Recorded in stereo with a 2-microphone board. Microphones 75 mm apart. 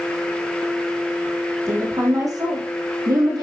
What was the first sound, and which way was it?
A woman speaking, 45° right (ahead or behind).